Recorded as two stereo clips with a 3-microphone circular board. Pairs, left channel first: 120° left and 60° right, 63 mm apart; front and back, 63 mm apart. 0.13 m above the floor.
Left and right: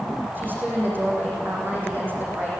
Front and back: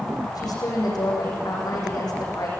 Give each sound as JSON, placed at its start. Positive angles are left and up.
{"t": 0.3, "sound": "a woman speaking", "azimuth_deg": 0, "distance_m": 8.0}